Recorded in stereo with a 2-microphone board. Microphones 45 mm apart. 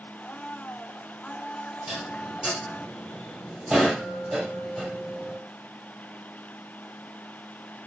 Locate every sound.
0.2 s a blender: 20° left (ahead or behind), 0.6 m
1.9 s dishes clattering: 20° right (ahead or behind), 2 m